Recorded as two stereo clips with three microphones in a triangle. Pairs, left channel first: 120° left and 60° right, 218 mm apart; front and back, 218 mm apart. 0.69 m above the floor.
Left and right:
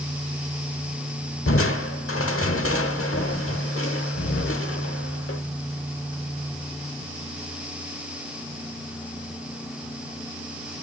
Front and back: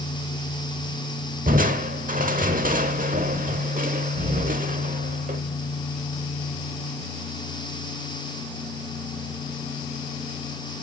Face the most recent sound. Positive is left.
turn(degrees=125)